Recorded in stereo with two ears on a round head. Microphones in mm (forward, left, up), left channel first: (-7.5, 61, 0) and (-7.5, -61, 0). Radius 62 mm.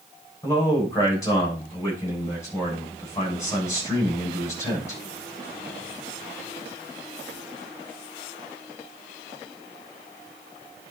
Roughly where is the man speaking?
Left.